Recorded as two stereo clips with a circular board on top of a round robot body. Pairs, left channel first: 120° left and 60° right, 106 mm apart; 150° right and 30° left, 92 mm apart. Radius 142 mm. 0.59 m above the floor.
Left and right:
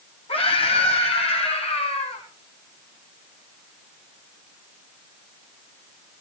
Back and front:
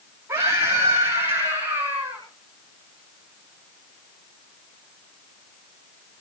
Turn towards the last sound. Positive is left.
turn(degrees=105)